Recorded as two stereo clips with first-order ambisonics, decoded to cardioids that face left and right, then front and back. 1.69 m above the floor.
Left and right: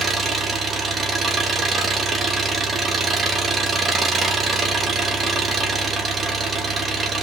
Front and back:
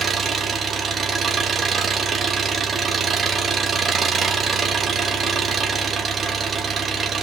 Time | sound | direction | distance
0.0 | an engine running | 140° right | 1.1 m